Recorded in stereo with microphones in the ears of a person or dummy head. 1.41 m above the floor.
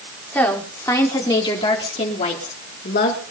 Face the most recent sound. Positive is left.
turn(degrees=55)  # may be behind; listen again after turning